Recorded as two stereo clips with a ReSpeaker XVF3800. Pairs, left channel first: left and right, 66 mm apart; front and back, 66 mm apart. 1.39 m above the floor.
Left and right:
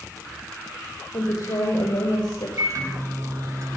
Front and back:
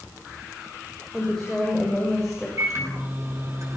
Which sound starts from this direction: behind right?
A microwave, at 2.6 s.